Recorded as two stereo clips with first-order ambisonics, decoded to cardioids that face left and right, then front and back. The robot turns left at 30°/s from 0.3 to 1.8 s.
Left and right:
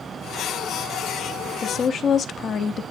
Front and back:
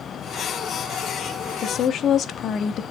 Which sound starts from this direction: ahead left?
A woman speaking, at 1.6 s.